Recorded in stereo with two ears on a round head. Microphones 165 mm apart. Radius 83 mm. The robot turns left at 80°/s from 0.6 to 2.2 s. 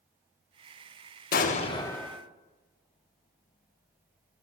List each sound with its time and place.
1.3 s an explosion: 65° left, 0.5 m; by 2.2 s 5° right, 0.5 m